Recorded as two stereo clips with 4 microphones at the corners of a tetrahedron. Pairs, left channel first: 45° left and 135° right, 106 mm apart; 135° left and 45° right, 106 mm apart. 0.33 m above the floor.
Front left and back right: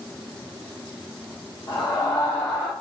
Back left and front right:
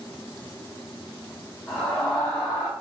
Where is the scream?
45° left, 1.6 m; by 2.7 s 115° left, 1.4 m.